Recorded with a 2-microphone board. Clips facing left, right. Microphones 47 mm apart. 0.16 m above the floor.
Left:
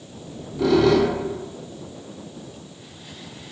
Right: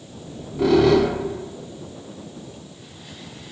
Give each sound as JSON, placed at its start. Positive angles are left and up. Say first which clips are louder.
{"t": 0.2, "sound": "a squeak", "louder": "right 1 dB", "side_deg": -20, "distance_m": 0.8}